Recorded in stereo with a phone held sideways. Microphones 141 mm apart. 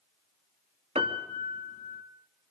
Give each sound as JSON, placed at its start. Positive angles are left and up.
{"t": 0.9, "sound": "a piano", "side_deg": -40, "distance_m": 3.0}